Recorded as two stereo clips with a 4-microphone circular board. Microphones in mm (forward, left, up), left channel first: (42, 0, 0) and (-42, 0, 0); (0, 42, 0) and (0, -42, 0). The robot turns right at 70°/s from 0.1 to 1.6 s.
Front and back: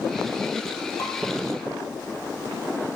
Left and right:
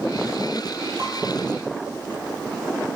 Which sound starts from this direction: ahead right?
Dishes clattering, at 1.0 s.